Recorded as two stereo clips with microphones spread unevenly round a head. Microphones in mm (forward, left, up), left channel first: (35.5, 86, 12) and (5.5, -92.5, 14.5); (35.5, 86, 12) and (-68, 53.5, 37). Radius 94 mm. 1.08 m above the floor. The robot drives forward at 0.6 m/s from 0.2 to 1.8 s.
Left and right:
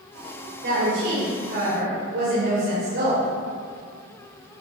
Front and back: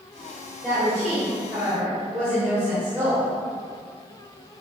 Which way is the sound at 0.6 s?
70° right.